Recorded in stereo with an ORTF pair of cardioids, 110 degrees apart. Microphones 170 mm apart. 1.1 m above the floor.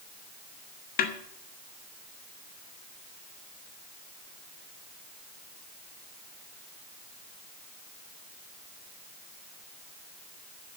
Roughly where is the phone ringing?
No phone ringing in this recording.